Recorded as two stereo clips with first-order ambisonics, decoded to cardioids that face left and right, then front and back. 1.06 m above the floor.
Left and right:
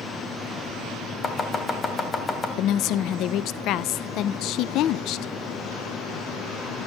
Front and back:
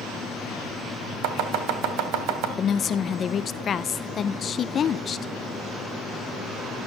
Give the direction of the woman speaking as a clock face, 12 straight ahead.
10 o'clock.